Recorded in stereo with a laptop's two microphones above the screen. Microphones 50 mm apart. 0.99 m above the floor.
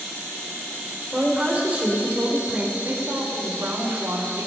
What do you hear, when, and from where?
1.1 s a woman speaking: 30° right (ahead or behind), 3 m
2.8 s a woman speaking: 65° right (ahead or behind), 2 m